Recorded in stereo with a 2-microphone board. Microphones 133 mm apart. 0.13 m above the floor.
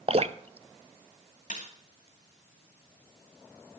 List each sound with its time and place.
0.1 s dripping: 50° right (ahead or behind), 0.6 m
1.5 s a snare drum: 70° left (ahead or behind), 3 m